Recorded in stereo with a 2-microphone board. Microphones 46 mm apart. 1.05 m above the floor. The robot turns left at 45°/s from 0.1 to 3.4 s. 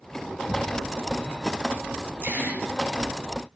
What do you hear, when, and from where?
0.5 s a thud: 30° right (ahead or behind), 3 m; by 0.7 s 20° right (ahead or behind), 3 m
2.2 s a gasp: 55° right (ahead or behind), 6.5 m; by 2.6 s 35° right (ahead or behind), 6.5 m